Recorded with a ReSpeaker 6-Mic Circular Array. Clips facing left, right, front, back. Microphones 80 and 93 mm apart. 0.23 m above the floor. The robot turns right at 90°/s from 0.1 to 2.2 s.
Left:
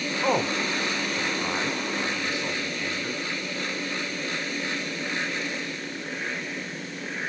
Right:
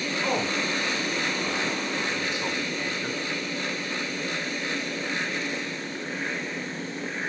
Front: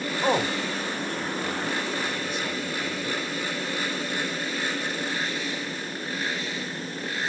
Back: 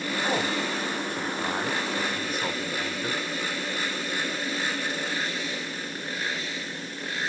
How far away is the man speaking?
About 2.5 m.